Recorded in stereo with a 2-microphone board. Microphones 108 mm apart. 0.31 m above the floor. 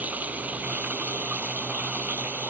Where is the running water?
15° right (ahead or behind).